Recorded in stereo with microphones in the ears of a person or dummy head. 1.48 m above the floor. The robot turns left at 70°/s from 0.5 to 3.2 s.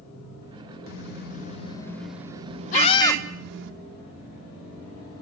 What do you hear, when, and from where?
0.9 s a car horn: 90° left, 2 m; by 3.7 s 75° right, 2 m
2.7 s a scream: 50° left, 1.7 m; by 3.2 s 15° left, 1.7 m